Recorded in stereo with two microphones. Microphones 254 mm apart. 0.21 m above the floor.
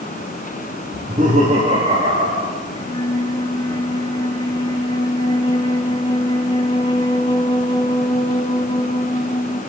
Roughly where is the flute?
Centre.